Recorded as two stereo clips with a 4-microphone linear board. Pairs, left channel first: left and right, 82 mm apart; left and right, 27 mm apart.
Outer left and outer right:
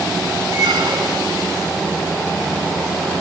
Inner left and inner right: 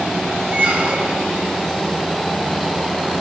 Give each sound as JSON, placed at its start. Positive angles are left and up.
{"t": 0.5, "sound": "a squeak", "side_deg": -80, "distance_m": 2.5}